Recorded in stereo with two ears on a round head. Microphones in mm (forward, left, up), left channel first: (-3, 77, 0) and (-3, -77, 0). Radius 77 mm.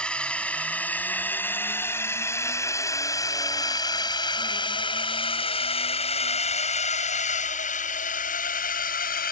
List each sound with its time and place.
0.0 s a drone: 5° left (ahead or behind); by 9.3 s 55° left (ahead or behind)